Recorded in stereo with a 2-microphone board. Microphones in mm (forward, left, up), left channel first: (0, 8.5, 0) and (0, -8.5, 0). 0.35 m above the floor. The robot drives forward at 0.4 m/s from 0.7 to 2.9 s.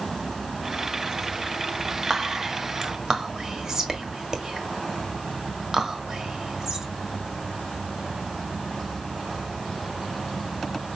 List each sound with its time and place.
2.1 s whispering: 35° right (ahead or behind), 1.5 m; by 6.9 s 40° right (ahead or behind), 1.3 m